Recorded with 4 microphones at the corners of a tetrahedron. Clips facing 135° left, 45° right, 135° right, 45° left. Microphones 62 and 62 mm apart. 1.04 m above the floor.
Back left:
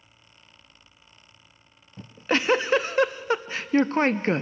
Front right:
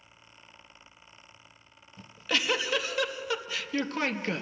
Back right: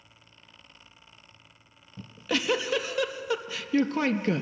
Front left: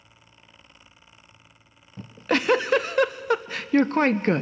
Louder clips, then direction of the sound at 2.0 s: Back left 6 dB, front left 6 dB; 80° left.